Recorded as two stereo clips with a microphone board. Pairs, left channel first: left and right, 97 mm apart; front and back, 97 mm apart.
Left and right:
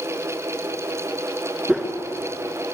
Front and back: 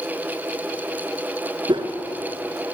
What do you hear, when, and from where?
1.7 s a whoosh: 165° right, 2 m